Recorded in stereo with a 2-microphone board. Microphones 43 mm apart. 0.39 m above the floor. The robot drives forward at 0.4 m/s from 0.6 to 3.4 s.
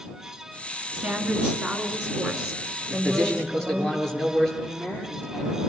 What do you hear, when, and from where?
0.9 s a woman speaking: 20° right (ahead or behind), 4 m; by 3.9 s 15° right (ahead or behind), 5 m
2.9 s a man speaking: 15° left (ahead or behind), 7.5 m
4.6 s a woman speaking: 30° left (ahead or behind), 9 m